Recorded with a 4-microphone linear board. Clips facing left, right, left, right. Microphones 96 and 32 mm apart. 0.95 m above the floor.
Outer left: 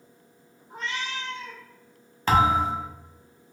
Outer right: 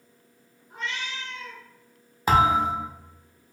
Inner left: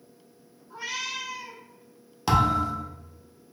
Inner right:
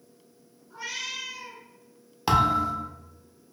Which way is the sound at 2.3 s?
10° right (ahead or behind).